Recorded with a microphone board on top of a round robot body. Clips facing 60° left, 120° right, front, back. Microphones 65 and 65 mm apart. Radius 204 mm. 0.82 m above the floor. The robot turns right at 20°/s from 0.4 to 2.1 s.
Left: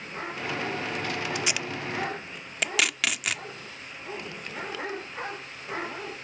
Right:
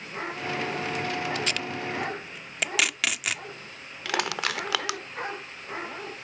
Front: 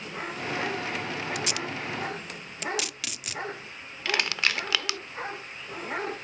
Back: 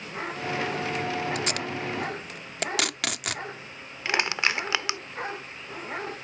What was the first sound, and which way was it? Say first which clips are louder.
Tape being pulled: right 1 dB, back 2 dB; 135° left.